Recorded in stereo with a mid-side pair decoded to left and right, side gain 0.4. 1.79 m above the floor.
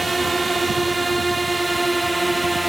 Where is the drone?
30° right; by 2.7 s 20° right.